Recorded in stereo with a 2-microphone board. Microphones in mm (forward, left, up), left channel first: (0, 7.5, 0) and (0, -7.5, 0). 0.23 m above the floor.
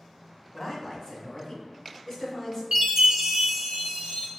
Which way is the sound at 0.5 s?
40° left (ahead or behind).